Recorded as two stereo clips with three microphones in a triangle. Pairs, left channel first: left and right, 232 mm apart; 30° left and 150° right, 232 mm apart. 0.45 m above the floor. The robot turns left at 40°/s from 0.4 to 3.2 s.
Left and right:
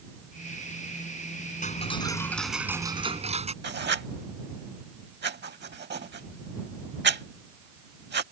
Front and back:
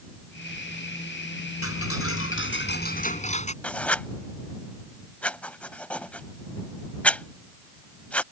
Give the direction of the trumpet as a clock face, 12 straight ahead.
No trumpet in this recording.